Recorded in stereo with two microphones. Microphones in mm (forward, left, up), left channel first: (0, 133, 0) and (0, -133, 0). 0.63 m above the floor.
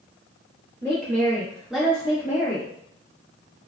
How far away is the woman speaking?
About 1.0 m.